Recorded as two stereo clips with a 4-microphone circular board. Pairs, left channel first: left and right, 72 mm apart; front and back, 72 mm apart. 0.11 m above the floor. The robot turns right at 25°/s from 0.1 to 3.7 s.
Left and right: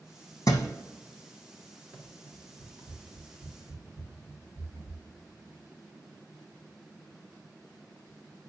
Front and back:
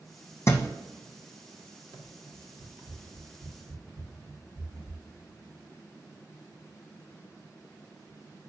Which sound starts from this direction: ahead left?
A thud, at 0.5 s.